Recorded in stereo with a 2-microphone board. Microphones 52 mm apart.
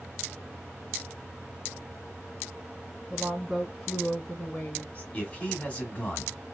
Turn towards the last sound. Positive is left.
turn(degrees=20)  # may be behind; listen again after turning